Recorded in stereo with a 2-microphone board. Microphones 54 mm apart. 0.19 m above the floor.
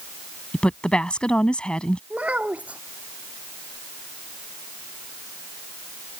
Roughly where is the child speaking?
Right.